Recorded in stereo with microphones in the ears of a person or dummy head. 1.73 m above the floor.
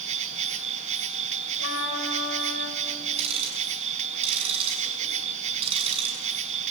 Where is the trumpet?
75° left (ahead or behind), 4 m.